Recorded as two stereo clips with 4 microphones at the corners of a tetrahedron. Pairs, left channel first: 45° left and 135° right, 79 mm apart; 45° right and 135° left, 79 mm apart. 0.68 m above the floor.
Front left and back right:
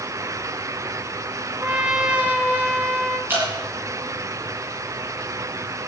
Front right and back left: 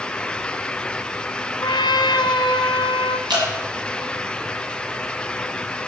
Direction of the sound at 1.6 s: 65° right.